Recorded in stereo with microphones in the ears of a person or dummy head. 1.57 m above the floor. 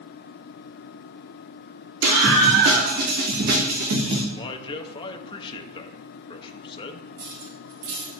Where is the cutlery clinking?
60° right (ahead or behind), 1.5 m.